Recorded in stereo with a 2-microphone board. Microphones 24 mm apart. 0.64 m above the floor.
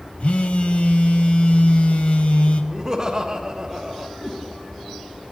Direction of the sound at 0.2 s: 55° left (ahead or behind).